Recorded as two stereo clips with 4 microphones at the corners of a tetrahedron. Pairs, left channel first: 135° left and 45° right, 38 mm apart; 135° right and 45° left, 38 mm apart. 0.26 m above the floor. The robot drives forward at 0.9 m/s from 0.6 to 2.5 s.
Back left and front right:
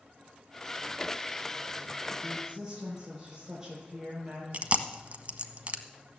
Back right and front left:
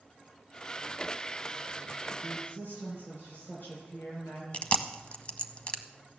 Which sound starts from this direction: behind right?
A woman speaking, at 2.2 s.